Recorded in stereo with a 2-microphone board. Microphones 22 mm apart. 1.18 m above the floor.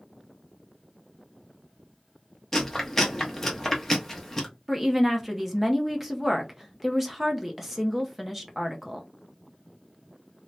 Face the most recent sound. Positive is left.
turn(degrees=-10)  # may be behind; listen again after turning